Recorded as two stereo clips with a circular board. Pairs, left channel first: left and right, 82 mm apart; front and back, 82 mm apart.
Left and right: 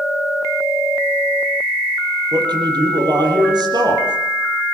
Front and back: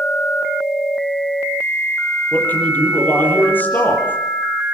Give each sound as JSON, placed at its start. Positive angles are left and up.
{"t": 2.3, "sound": "a man speaking", "azimuth_deg": -65, "distance_m": 6.5}